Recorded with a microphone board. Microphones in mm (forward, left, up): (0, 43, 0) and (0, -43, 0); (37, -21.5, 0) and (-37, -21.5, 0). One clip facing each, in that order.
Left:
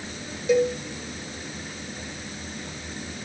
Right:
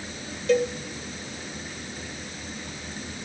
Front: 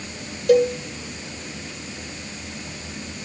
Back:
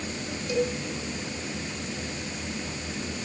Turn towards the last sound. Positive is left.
turn(degrees=15)